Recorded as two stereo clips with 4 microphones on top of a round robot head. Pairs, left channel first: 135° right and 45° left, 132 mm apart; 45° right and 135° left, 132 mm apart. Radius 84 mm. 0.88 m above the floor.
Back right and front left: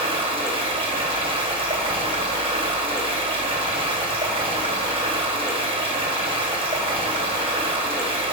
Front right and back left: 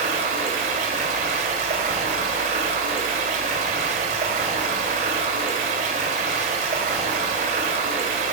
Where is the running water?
95° left, 1.7 m.